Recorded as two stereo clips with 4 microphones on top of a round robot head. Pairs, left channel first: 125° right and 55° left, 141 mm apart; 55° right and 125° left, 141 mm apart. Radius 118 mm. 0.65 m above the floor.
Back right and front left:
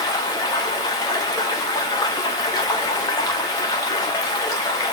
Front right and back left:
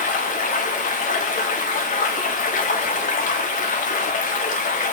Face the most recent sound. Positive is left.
turn(degrees=-60)